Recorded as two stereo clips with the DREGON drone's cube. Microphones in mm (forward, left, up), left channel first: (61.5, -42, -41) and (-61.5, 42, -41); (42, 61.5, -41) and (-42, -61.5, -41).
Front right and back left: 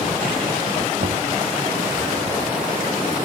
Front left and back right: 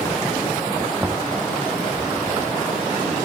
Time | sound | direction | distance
1.0 | knocking | 150° left | ?